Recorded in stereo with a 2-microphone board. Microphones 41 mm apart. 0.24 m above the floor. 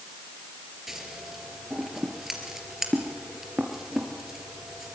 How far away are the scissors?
About 3.5 m.